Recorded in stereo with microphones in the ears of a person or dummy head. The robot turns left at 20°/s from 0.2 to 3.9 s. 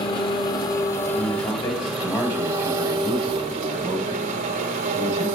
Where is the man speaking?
40° left, 8.5 m; by 5.3 s 15° right, 8.5 m.